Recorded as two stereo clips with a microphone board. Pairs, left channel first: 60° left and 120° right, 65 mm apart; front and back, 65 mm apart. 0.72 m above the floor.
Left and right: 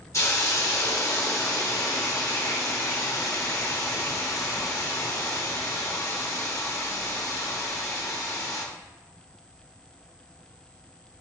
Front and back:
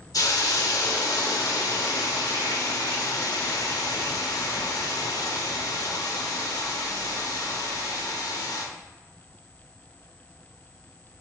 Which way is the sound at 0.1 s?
20° left.